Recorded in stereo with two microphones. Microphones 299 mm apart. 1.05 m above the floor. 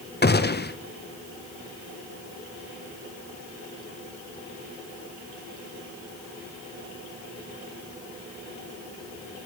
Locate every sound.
0.2 s a gunshot: 35° left (ahead or behind), 0.6 m